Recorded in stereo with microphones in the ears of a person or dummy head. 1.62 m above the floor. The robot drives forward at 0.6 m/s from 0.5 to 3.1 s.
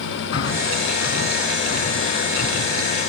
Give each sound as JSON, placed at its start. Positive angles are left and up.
{"t": 0.3, "sound": "breathing", "side_deg": 60, "distance_m": 3.0}